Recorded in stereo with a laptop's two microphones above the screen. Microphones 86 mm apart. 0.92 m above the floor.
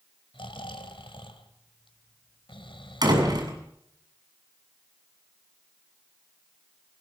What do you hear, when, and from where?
0.3 s snoring: 85° left, 2.5 m
3.0 s a door slam: 50° right (ahead or behind), 7 m